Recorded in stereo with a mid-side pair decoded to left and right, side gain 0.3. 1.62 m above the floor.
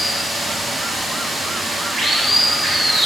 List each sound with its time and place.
0.0 s running water: 70° right, 3 m